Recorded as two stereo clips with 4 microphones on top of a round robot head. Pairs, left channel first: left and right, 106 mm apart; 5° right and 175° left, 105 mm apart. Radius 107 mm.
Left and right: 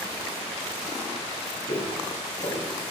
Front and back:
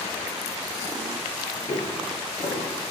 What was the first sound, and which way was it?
Footsteps, 45° left.